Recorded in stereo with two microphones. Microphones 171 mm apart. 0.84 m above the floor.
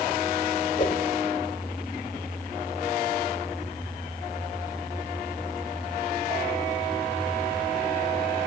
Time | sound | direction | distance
0.8 | a whoosh | 45° left (ahead or behind) | 1.1 m